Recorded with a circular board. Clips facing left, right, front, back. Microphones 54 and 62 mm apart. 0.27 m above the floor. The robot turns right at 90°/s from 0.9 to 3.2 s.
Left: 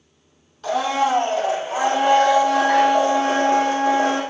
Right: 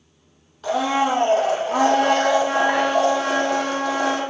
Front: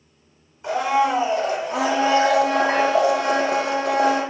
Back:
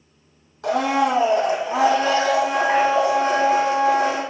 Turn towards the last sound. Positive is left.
turn(degrees=35)